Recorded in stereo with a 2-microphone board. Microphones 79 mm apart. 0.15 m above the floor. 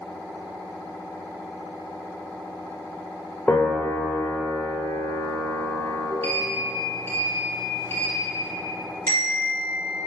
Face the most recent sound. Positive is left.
turn(degrees=15)  # may be behind; listen again after turning